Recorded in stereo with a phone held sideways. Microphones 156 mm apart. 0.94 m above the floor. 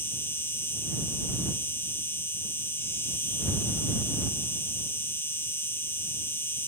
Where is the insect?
15° left (ahead or behind).